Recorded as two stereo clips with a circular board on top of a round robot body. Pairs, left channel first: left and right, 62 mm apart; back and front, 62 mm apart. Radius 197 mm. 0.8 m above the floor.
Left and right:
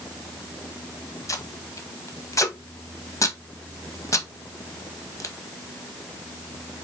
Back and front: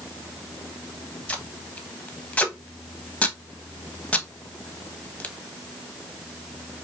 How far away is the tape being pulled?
About 1.1 m.